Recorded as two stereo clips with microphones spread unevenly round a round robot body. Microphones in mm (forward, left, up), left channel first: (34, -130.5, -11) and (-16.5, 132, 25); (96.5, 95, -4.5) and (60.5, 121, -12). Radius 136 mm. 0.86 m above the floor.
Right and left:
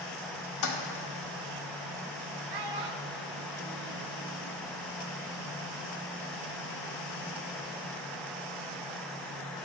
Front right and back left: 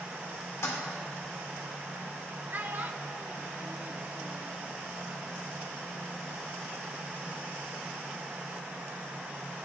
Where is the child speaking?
95° left, 0.9 m.